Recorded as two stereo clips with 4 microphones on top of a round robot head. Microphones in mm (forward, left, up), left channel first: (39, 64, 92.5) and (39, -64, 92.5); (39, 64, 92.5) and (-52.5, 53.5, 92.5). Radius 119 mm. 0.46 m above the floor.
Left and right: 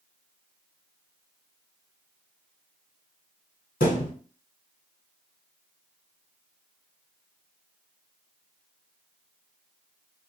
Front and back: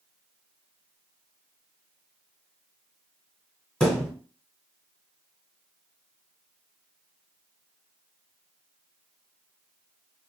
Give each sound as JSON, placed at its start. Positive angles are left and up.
{"t": 3.8, "sound": "a thud", "azimuth_deg": 90, "distance_m": 1.5}